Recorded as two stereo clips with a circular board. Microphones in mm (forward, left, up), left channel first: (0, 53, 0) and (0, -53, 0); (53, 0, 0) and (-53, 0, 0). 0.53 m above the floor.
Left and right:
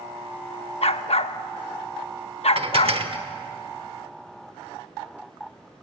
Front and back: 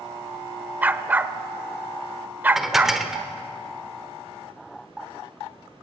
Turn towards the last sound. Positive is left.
turn(degrees=-90)